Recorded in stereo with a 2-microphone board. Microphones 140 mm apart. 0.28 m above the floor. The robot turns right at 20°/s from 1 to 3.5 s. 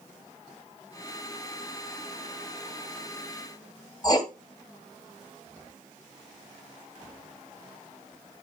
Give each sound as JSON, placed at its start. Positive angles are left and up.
{"t": 4.0, "sound": "writing", "side_deg": 30, "distance_m": 1.6}